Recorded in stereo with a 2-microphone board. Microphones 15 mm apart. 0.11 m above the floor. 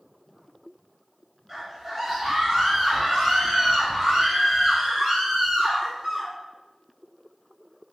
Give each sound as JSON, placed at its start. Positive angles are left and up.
{"t": 1.5, "sound": "a scream", "side_deg": -20, "distance_m": 1.7}